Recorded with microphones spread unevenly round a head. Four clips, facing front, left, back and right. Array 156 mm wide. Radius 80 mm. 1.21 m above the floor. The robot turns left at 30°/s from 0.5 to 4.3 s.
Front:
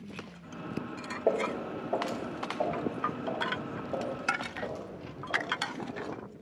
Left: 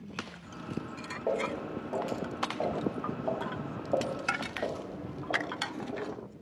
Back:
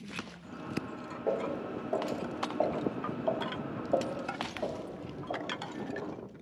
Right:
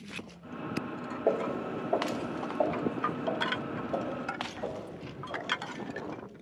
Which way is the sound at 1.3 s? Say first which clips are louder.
Right 2 dB, front 3 dB; 45° right.